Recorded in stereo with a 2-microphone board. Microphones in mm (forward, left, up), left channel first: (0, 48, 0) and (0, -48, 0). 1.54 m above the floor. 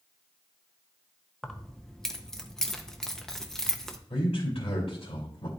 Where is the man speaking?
75° left (ahead or behind), 2.5 m.